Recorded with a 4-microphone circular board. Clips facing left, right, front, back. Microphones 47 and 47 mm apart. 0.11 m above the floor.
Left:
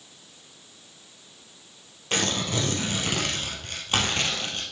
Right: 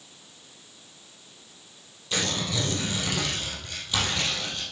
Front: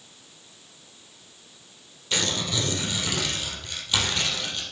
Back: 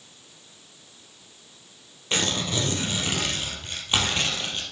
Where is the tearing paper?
125° left, 3 m.